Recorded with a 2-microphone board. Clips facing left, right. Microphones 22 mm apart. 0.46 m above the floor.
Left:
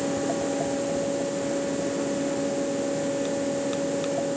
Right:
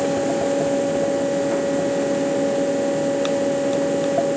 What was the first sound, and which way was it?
Only background noise.